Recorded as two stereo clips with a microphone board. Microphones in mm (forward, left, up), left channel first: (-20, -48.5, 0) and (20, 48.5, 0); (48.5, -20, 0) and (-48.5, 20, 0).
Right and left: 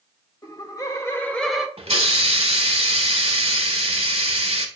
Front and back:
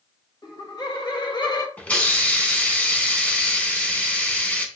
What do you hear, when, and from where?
0.4 s laughter: 70° right, 1.8 m; by 1.7 s 5° right, 0.9 m
1.8 s a hiss: 55° left, 1.0 m